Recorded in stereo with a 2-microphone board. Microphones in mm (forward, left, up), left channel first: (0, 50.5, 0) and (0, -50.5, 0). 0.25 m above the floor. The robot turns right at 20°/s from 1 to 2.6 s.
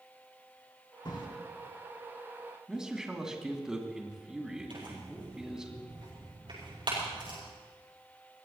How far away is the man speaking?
About 2.5 m.